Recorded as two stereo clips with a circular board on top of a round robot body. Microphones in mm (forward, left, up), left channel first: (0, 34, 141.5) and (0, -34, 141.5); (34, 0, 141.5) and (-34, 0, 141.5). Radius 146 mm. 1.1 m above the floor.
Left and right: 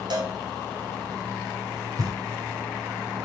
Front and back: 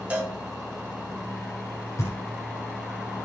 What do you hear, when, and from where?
0.1 s a cowbell: 105° right, 3 m
2.0 s knocking: 50° right, 3.5 m